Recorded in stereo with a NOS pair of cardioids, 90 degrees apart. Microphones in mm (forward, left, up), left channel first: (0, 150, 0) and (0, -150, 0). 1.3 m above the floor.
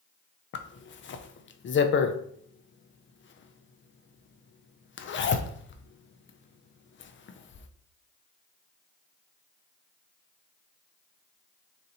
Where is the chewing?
I don't hear chewing.